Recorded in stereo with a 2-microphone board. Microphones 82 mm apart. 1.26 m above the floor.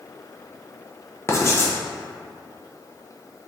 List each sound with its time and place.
1.3 s writing: 35° left (ahead or behind), 0.6 m